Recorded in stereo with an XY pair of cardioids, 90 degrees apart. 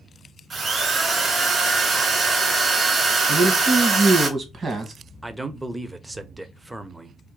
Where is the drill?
45° right, 2.5 m.